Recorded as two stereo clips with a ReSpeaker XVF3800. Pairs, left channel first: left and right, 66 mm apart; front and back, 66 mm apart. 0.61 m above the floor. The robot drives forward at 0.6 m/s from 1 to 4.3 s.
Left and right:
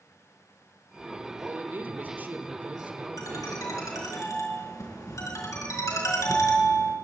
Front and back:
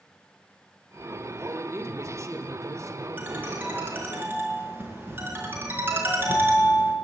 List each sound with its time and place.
1.4 s a man speaking: 140° right, 1.8 m; by 4.2 s 160° right, 3 m
3.2 s a ringtone: 115° left, 4.5 m; by 6.9 s 125° left, 5 m